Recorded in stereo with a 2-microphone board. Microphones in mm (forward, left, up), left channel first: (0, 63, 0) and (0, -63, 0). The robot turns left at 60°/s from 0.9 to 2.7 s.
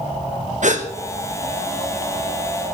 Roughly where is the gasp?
Right.